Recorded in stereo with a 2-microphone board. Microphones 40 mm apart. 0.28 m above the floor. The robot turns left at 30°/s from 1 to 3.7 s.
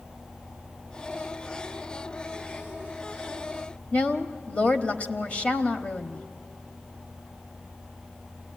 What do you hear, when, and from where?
3.9 s a woman speaking: 35° left (ahead or behind), 1.1 m